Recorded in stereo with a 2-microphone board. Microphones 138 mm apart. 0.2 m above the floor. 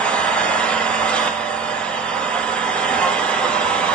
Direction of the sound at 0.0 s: 10° left (ahead or behind).